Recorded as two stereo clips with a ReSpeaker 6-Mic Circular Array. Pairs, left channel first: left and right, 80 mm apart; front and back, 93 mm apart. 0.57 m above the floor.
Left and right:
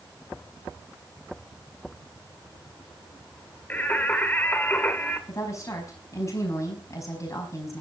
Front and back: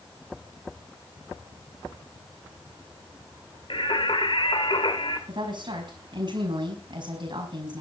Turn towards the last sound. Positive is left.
turn(degrees=140)